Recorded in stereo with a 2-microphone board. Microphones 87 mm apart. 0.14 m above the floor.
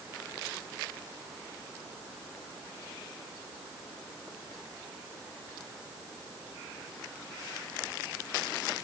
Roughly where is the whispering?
No whispering in this recording.